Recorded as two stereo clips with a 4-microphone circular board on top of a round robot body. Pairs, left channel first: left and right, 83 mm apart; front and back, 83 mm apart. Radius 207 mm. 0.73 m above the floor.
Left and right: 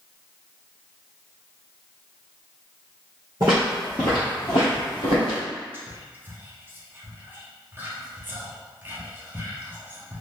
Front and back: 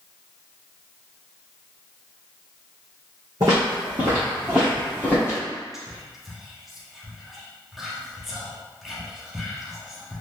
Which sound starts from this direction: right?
Whispering, at 5.7 s.